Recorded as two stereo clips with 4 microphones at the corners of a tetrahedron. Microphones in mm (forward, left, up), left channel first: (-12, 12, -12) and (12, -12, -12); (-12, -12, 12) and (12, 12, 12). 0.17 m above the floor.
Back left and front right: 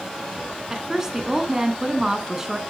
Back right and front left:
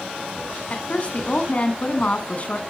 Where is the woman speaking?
110° right, 1.4 m.